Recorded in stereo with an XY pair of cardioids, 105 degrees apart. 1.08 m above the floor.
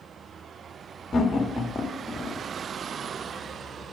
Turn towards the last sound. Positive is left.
turn(degrees=30)